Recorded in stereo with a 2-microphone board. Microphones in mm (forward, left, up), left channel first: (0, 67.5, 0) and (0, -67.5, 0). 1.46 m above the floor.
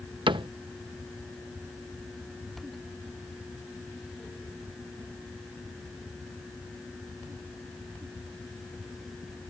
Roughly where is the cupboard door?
Right.